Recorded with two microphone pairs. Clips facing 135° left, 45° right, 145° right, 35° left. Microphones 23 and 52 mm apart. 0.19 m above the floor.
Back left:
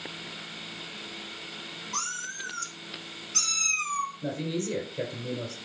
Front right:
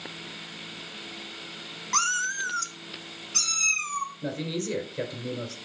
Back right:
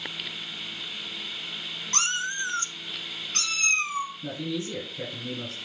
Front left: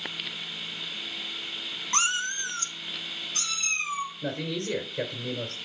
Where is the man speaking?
20° left, 2.5 m.